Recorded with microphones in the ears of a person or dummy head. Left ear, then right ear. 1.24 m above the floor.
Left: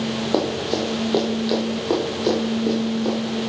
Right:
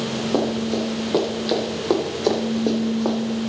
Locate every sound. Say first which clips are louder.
0.3 s running footsteps: left 1 dB; 20° left (ahead or behind), 1.8 m; by 3.1 s 25° right (ahead or behind), 2 m